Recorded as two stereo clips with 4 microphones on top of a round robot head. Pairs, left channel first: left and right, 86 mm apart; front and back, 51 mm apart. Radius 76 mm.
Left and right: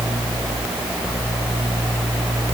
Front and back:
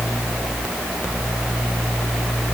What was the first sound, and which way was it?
Only background noise.